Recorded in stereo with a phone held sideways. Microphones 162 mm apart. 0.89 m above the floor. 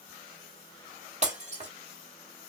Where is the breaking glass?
45° right (ahead or behind), 1.4 m.